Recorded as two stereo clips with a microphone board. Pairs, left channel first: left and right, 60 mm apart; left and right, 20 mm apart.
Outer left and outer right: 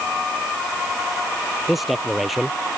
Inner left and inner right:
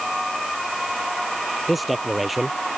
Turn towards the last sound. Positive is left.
turn(degrees=-5)  # may be behind; listen again after turning